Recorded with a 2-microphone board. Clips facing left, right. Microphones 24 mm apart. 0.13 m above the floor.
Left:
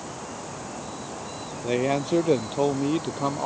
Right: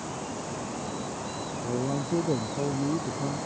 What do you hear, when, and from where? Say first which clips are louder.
1.6 s a man speaking: left 6 dB; 65° left (ahead or behind); by 3.5 s 70° left (ahead or behind)